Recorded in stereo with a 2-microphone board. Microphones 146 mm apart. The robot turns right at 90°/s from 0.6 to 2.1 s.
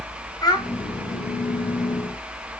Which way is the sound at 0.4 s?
30° left (ahead or behind).